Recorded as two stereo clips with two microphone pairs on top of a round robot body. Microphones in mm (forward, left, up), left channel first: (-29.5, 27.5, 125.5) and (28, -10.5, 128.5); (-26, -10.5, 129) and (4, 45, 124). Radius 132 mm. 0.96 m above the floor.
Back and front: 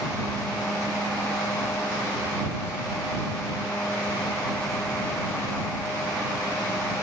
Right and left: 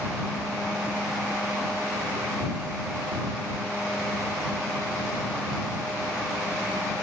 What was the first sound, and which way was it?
Only background noise.